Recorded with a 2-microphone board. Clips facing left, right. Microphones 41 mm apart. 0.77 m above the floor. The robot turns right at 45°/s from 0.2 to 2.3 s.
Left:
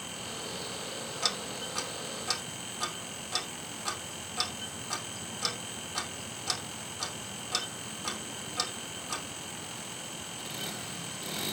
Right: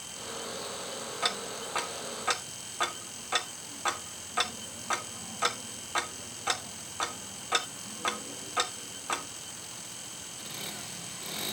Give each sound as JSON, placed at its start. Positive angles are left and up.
{"t": 1.2, "sound": "ticking", "side_deg": -25, "distance_m": 1.3}